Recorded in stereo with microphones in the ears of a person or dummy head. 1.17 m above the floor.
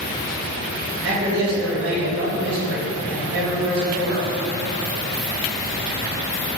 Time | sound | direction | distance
1.0 | a man speaking | 70° right (ahead or behind) | 1.4 m